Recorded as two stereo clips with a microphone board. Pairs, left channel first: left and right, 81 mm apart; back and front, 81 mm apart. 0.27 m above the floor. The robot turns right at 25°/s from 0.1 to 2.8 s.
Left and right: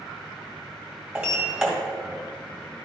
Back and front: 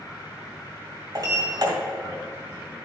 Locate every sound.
1.1 s a sliding door: 15° right, 2 m; by 1.7 s 5° right, 2 m